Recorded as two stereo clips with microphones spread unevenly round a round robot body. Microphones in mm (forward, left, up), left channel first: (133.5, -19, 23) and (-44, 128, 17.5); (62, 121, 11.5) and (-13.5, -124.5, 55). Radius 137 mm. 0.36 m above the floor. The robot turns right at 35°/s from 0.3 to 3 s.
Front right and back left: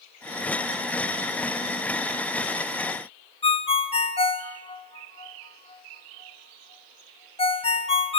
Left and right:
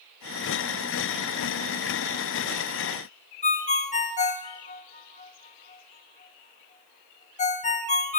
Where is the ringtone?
25° left, 1.5 m.